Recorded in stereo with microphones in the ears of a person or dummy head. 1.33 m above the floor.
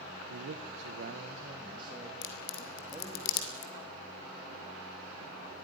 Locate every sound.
0.3 s a man speaking: 85° right, 0.8 m; by 3.2 s 10° right (ahead or behind), 2 m
2.2 s a crack: 70° left (ahead or behind), 2.5 m